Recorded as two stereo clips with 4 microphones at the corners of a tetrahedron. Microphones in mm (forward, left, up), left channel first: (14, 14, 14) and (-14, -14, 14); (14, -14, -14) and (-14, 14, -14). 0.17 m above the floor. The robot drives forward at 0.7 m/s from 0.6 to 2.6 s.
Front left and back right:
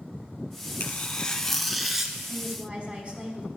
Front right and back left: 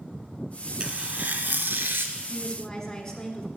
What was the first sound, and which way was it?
Tearing paper, 80° left.